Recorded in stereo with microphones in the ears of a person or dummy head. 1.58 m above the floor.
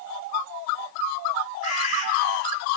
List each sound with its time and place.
1.6 s a bird: 40° left (ahead or behind), 3.5 m